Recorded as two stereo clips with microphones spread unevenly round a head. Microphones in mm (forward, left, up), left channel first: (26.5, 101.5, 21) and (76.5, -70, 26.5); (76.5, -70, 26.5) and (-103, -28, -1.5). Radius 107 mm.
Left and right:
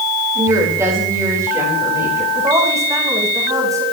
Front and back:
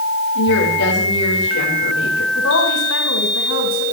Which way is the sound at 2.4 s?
Straight ahead.